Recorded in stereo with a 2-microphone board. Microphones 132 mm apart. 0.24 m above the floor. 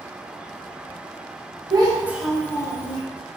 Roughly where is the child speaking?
Right.